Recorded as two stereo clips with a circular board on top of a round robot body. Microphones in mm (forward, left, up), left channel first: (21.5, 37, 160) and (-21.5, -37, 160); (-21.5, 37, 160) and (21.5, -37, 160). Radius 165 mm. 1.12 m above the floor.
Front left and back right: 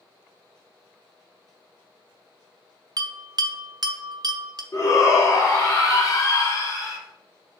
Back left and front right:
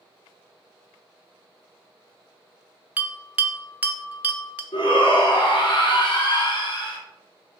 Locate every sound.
3.0 s a bell: 130° right, 0.7 m
4.7 s a shout: 105° left, 1.4 m